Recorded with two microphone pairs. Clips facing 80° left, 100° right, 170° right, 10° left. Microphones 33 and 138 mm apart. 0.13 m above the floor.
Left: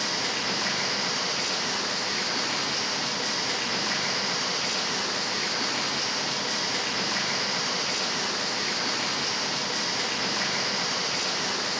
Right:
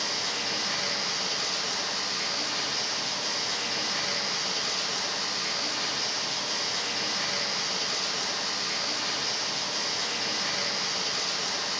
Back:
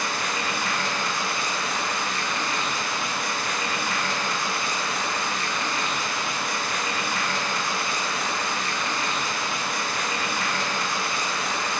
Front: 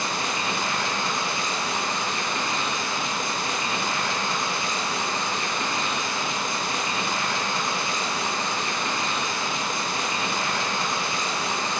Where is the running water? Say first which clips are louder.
Left 2 dB, even; 70° left, 9.5 m.